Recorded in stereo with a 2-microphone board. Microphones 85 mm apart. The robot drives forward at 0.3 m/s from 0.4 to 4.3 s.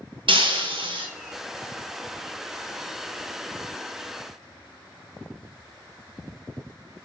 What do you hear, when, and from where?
0.3 s breaking glass: 90° right, 1.4 m; by 1.1 s 80° right, 1.4 m